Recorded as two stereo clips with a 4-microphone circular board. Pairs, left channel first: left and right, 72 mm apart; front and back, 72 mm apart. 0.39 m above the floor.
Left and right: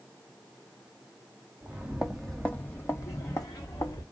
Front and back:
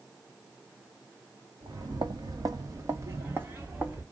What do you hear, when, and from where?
1.6 s footsteps: 160° right, 0.9 m; by 4.0 s 105° left, 1.3 m